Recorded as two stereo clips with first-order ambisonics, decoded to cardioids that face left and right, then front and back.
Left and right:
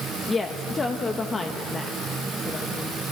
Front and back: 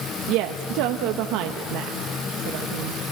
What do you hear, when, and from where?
0.3 s a woman speaking: 165° left, 1.0 m